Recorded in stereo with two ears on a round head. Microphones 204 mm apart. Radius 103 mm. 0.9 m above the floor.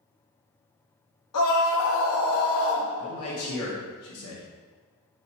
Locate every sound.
1.3 s a scream: 75° left (ahead or behind), 1.6 m; by 2.9 s 65° left (ahead or behind), 0.8 m
3.0 s a man speaking: 70° left (ahead or behind), 1.5 m